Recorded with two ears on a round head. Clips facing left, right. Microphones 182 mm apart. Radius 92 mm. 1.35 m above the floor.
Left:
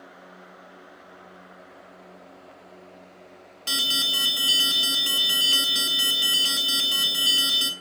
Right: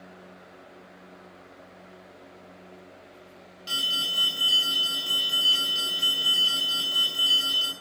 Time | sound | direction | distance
3.7 | an alarm | 65° left (ahead or behind) | 3 m